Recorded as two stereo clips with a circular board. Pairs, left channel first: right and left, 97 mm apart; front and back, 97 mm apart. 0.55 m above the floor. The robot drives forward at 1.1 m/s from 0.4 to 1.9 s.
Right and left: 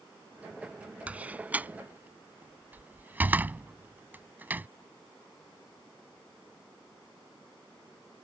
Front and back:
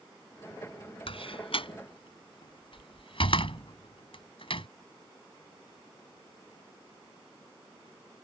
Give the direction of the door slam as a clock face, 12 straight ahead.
11 o'clock.